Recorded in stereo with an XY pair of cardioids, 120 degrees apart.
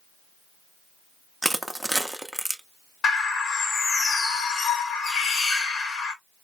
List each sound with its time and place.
1.4 s crushing: 5° right, 0.6 m
3.0 s a bird: 55° left, 1.7 m